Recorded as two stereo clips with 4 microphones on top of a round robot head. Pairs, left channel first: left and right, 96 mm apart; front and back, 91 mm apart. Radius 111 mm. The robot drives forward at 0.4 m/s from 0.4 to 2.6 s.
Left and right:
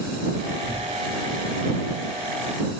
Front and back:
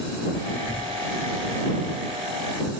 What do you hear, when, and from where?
0.7 s tearing paper: 140° right, 1.1 m; by 2.7 s 160° right, 1.7 m